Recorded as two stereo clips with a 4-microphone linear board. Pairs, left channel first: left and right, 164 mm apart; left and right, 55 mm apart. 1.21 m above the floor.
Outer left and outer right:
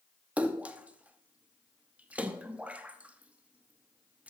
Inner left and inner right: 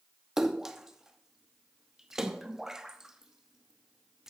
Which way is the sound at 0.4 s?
10° right (ahead or behind).